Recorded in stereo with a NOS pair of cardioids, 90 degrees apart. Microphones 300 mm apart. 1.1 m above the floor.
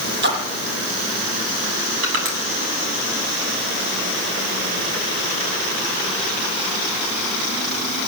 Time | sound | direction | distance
0.2 | a splash | 35° right | 6.5 m
2.0 | crushing | 40° right | 9.5 m